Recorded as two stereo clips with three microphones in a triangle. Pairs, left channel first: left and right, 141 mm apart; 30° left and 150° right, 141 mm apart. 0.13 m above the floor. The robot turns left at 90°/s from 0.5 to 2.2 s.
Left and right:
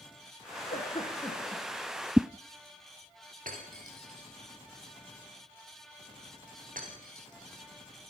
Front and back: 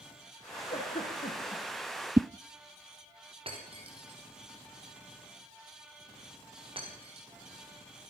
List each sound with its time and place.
0.7 s a giggle: 70° left, 8 m; by 1.6 s 15° right, 8 m
2.2 s a whoosh: 155° right, 0.6 m; by 2.3 s 160° right, 0.6 m
3.5 s breaking glass: 100° right, 6.5 m